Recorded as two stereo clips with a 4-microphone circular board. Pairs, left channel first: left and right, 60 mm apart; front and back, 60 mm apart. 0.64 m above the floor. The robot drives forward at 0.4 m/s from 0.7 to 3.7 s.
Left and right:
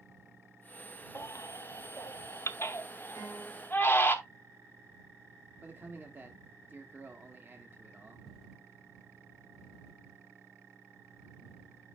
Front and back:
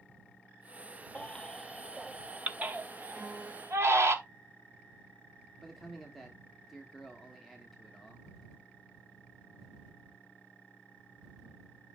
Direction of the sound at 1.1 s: 70° left.